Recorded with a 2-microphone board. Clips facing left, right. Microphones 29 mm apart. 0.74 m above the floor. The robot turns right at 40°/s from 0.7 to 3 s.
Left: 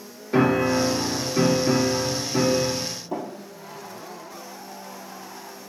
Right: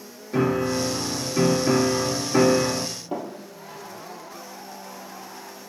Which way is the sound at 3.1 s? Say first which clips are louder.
Even; 30° right (ahead or behind).